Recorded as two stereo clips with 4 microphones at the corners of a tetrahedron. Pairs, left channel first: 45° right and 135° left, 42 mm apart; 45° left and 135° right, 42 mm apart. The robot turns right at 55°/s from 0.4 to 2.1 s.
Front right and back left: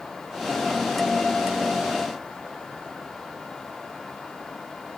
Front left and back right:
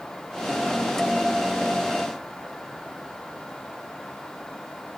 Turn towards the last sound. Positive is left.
No sound to turn to.